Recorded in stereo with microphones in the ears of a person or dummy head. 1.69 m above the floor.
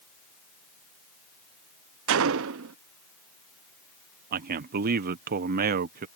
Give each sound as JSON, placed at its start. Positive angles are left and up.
{"t": 2.1, "sound": "a gunshot", "side_deg": -75}
{"t": 4.3, "sound": "a man speaking", "side_deg": -50}